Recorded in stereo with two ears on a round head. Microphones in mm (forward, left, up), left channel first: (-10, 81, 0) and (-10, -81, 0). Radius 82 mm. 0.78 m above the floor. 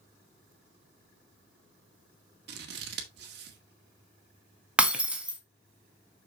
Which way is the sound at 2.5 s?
60° right (ahead or behind).